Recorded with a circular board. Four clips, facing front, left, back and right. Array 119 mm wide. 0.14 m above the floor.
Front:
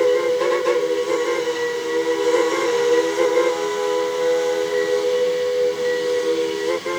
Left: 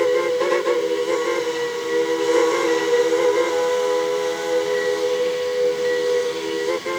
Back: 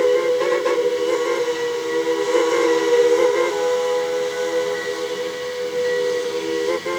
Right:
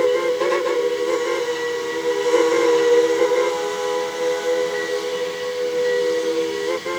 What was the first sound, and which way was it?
Only background noise.